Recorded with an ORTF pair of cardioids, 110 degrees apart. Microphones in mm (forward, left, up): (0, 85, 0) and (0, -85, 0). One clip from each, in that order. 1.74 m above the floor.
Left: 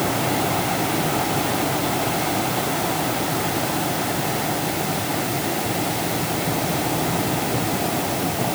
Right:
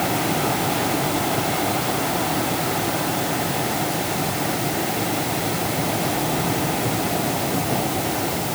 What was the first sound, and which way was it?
Only background noise.